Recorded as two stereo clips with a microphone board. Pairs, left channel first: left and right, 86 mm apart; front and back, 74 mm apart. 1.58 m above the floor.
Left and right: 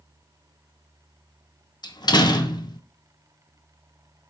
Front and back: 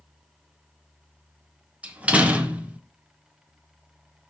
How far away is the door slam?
About 1.0 m.